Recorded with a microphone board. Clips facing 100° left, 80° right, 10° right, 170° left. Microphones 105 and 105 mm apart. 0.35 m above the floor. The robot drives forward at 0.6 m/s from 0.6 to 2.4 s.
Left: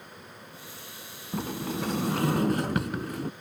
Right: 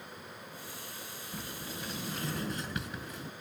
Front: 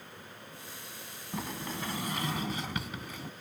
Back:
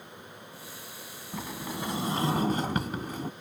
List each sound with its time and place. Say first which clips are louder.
1.3 s a sliding door: left 13 dB, back 1 dB; 75° left; by 3.3 s 120° left